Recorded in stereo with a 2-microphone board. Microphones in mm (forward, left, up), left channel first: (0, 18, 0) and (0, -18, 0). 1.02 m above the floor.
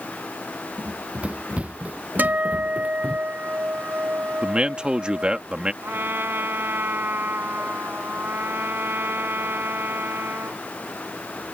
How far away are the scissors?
I don't hear scissors.